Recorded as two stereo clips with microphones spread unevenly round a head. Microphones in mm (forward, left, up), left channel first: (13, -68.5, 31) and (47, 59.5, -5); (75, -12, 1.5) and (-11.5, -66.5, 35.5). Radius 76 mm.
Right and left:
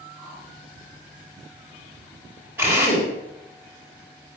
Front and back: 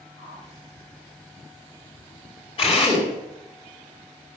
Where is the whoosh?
10° right, 5 m.